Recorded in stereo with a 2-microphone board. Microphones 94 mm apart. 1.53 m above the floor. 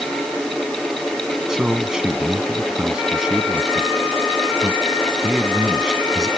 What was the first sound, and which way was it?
A man speaking, 5° right (ahead or behind).